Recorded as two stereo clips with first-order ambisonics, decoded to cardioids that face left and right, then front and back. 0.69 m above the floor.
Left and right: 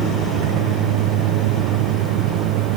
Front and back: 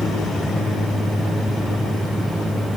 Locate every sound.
0.0 s a vehicle: 85° right; by 2.8 s 90° right